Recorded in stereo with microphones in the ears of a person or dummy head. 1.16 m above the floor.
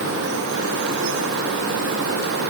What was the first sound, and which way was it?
Only background noise.